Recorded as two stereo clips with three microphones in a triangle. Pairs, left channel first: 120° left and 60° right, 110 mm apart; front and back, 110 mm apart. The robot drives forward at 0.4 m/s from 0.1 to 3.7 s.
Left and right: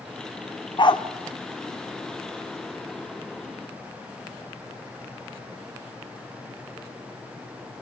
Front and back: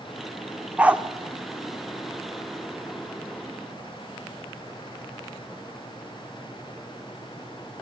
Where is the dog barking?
105° left, 1.2 m; by 1.0 s 110° left, 1.2 m.